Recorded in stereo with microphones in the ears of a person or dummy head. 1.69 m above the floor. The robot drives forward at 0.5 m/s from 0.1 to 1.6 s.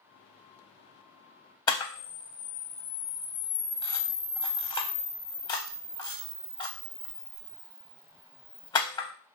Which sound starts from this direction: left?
A camera shutter, at 1.7 s.